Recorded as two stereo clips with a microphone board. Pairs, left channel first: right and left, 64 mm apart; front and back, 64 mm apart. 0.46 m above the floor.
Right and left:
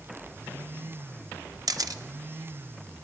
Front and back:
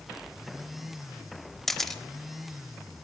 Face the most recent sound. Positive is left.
turn(degrees=85)